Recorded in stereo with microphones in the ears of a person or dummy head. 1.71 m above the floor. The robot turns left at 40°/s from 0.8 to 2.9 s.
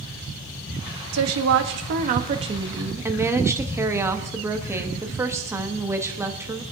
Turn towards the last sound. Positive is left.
turn(degrees=-170)